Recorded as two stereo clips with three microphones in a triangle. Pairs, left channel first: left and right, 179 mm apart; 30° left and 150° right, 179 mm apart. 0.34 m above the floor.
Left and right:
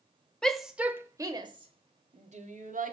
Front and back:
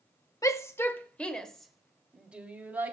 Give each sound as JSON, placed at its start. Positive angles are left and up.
{"t": 0.4, "sound": "a shout", "azimuth_deg": 10, "distance_m": 1.0}